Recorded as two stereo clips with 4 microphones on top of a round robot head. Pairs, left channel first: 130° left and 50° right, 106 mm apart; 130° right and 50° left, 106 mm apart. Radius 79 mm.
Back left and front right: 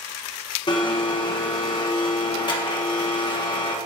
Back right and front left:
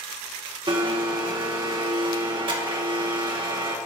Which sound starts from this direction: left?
A blender, at 0.7 s.